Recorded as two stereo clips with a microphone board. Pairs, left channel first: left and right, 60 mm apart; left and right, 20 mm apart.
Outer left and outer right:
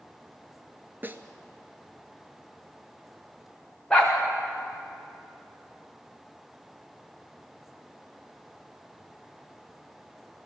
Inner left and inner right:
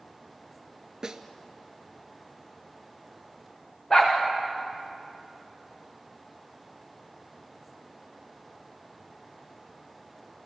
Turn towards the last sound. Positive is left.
turn(degrees=10)  # may be behind; listen again after turning